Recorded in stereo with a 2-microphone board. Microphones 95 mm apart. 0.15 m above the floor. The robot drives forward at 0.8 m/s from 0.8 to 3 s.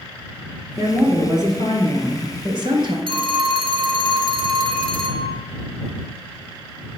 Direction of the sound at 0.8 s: 40° right (ahead or behind).